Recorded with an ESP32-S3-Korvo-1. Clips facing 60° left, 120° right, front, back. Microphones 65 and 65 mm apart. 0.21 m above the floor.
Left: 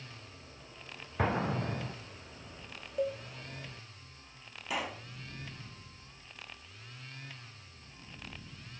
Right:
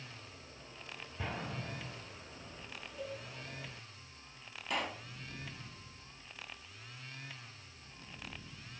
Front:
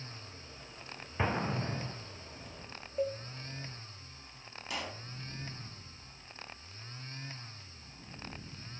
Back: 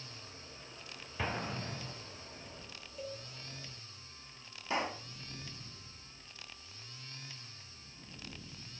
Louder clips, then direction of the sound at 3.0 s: Left 11 dB, front 11 dB; 40° left.